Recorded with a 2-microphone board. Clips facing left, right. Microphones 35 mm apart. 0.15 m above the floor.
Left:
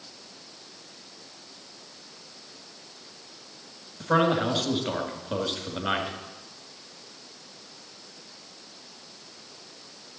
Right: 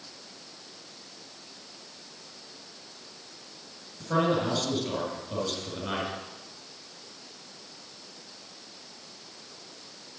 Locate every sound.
4.0 s a man speaking: 40° left (ahead or behind), 1.8 m